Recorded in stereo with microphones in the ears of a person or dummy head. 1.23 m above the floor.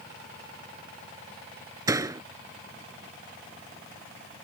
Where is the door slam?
20° right (ahead or behind).